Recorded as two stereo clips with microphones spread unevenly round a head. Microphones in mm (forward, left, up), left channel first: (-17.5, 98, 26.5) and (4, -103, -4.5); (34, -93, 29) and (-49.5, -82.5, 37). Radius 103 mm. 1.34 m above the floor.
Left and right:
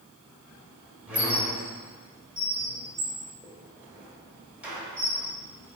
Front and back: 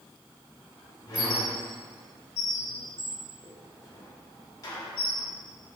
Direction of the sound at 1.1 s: 10° left.